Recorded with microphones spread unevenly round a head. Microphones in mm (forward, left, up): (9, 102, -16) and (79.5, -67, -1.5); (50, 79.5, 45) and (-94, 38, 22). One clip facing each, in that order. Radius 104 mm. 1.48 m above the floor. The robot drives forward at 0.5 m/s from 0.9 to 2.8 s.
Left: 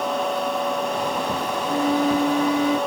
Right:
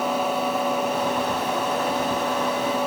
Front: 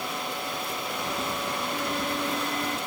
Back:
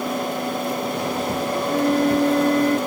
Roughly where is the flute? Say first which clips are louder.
Left 4 dB, back 15 dB; behind.